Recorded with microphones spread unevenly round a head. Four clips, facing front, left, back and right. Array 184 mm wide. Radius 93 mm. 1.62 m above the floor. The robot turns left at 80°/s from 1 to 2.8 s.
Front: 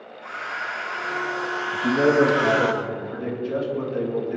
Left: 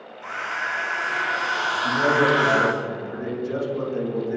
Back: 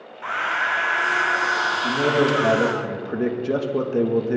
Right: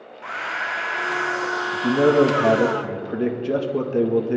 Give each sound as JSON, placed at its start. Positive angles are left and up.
{"t": 0.2, "sound": "a hair dryer", "azimuth_deg": -160, "distance_m": 0.9}
{"t": 1.7, "sound": "a man speaking", "azimuth_deg": -50, "distance_m": 2.0}